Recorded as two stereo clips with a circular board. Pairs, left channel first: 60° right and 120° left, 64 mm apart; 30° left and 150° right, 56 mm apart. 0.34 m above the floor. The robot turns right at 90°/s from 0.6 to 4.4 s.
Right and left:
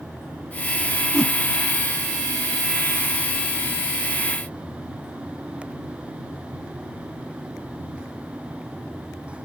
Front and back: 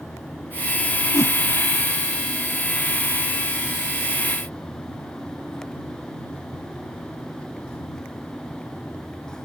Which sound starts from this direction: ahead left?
A whoosh, at 1.1 s.